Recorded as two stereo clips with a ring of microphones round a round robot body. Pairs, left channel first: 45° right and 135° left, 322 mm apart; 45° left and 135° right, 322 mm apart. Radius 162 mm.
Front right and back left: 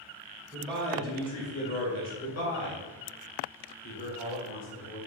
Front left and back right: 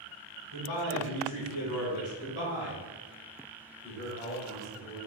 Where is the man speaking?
45° left, 1.9 m; by 5.0 s 50° right, 3 m.